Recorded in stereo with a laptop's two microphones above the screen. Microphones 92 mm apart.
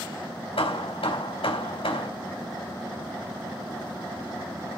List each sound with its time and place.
0.6 s hammering: 85° left, 3.5 m